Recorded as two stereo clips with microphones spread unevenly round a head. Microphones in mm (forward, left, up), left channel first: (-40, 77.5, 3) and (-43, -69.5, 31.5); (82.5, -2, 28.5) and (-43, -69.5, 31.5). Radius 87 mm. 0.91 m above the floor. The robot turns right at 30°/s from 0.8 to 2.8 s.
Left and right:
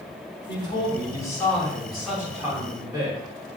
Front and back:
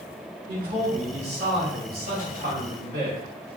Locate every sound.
0.5 s a man speaking: 145° left, 2.5 m; by 3.2 s 155° right, 2.5 m